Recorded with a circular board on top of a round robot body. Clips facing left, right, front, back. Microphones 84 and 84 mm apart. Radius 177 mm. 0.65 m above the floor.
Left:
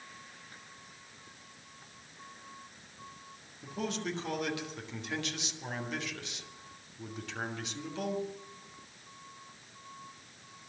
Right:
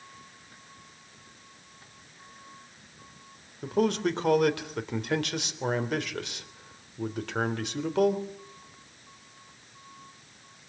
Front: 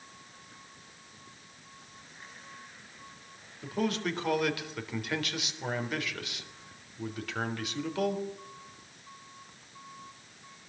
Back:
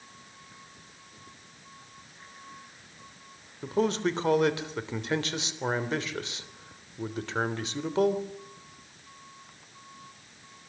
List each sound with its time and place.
3.6 s a man speaking: 120° right, 3.5 m